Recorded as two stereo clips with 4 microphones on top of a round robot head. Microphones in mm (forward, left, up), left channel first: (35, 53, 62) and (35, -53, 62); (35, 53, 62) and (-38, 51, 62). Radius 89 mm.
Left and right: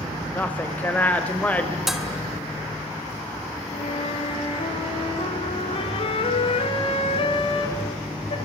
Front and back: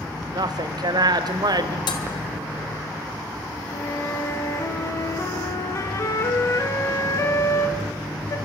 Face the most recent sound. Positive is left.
turn(degrees=50)